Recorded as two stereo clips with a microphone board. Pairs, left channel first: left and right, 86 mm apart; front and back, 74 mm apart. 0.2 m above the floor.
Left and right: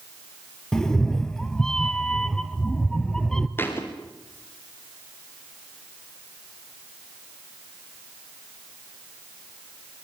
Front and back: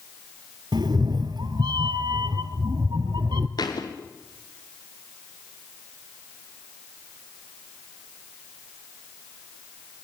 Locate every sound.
0.7 s a cat meowing: 170° left, 0.8 m
3.6 s a thud: 25° left, 3 m